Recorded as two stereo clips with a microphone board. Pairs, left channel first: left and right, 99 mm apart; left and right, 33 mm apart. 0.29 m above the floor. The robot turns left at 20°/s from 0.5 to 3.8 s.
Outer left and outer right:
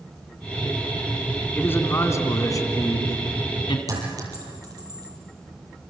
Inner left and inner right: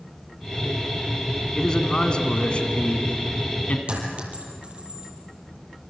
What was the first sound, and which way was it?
A man speaking, 155° left.